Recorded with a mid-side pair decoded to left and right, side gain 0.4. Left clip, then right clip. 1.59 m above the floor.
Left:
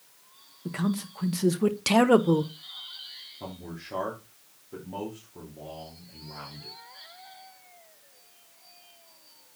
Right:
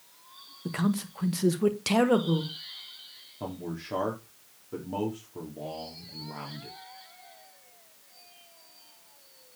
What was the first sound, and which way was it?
A man speaking, 20° right.